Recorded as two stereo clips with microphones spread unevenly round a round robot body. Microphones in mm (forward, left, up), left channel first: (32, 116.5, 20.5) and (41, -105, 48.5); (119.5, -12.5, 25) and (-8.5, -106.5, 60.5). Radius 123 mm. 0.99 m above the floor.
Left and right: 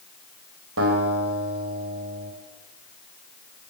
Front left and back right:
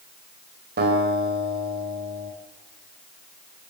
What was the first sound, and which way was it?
A guitar, 130° right.